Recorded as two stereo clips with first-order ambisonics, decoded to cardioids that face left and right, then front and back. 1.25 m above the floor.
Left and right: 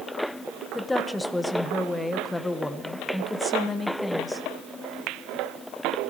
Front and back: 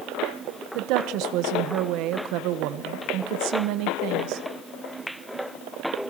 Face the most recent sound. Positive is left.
turn(degrees=175)